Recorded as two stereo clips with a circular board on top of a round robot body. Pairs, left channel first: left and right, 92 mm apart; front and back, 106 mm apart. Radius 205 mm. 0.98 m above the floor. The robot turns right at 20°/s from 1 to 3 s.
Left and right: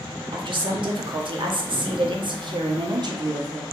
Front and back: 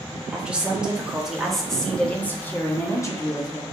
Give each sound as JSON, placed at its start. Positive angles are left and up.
{"t": 0.3, "sound": "a woman speaking", "azimuth_deg": -100, "distance_m": 1.2}